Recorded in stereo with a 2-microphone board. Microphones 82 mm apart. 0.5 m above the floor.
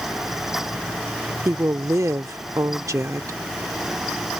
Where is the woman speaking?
45° right (ahead or behind).